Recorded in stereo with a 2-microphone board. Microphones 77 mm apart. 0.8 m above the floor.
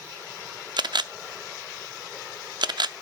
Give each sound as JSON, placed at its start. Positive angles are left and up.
{"t": 0.8, "sound": "a camera shutter", "side_deg": -70, "distance_m": 0.5}